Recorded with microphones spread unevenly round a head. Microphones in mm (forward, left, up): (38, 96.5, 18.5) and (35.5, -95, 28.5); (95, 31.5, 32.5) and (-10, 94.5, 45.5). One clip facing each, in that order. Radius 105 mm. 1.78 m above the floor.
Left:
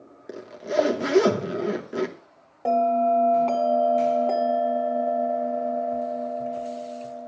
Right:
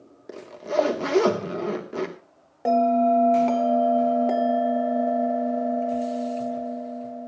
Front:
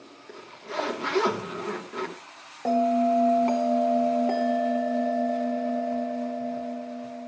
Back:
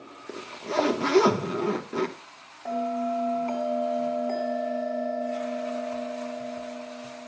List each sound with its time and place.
0.3 s a zipper: 170° left, 1.1 m
2.6 s a bell: 20° right, 1.6 m